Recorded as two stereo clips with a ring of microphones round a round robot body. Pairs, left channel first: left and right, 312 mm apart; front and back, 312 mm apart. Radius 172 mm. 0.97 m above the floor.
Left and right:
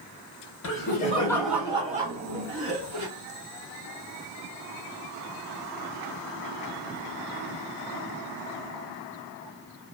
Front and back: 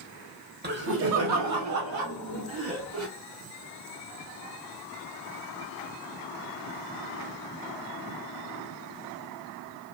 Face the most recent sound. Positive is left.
turn(degrees=-135)